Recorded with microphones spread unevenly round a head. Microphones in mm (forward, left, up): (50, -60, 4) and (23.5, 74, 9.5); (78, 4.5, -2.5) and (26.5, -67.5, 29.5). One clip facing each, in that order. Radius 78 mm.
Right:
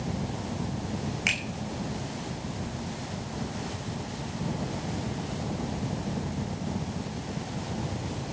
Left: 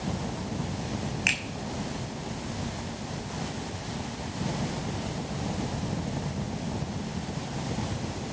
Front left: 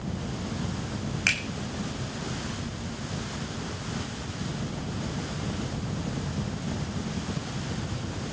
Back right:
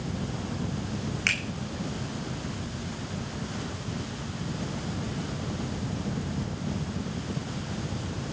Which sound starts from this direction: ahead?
A finger snap, at 1.3 s.